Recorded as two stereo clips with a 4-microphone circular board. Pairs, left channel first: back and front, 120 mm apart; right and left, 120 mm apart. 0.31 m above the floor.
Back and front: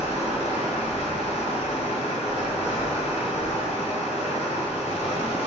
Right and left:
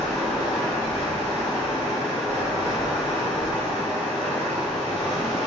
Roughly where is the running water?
Behind.